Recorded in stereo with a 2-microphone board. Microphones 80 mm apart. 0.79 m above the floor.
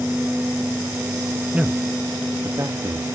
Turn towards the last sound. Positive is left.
turn(degrees=-45)  # may be behind; listen again after turning